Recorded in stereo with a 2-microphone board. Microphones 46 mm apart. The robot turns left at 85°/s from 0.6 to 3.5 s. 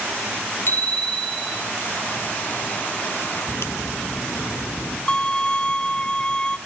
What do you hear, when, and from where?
0.7 s a bicycle bell: 55° left, 3 m; by 1.6 s 30° right, 3 m
3.5 s a crack: 65° left (ahead or behind), 0.9 m
5.1 s a violin: 15° left (ahead or behind), 0.5 m